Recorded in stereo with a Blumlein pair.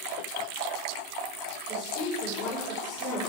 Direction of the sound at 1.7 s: 30° left.